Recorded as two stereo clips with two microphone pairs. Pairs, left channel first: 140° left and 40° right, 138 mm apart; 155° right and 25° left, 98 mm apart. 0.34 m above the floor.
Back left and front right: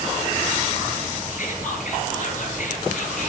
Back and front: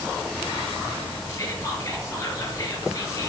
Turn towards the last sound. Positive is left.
turn(degrees=145)